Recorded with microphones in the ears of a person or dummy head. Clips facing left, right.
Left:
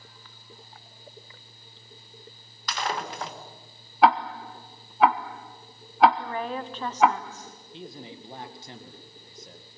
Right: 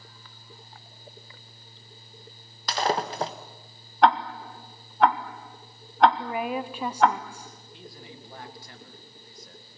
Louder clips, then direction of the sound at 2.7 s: Right 5 dB; 30° right (ahead or behind).